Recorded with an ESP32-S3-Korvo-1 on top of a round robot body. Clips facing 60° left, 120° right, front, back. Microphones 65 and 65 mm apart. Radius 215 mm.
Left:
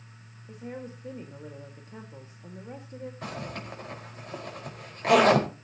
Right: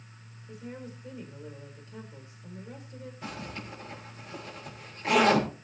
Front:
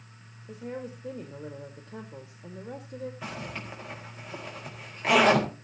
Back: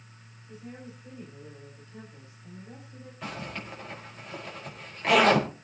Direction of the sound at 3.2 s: 85° left.